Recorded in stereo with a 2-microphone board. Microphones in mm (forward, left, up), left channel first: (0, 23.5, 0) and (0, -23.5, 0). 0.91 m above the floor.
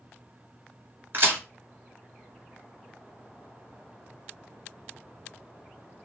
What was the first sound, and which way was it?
A crack, 45° right (ahead or behind).